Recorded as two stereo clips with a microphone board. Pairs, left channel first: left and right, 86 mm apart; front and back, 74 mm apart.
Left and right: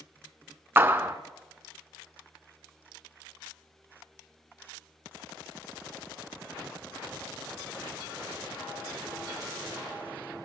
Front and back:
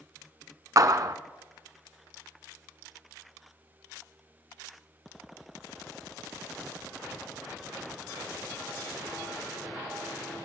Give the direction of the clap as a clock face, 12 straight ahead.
5 o'clock.